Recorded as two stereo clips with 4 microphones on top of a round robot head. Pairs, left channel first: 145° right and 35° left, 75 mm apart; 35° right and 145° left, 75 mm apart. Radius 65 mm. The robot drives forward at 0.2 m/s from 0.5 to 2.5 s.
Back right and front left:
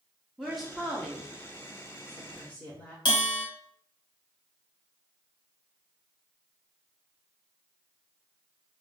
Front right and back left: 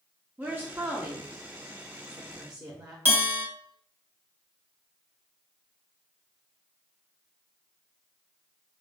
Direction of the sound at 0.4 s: 120° left.